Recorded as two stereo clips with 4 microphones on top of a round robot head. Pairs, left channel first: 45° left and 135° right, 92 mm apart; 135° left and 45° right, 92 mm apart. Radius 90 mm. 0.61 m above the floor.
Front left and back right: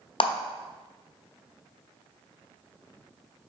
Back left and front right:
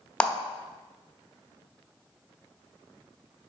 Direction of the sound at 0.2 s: 55° left.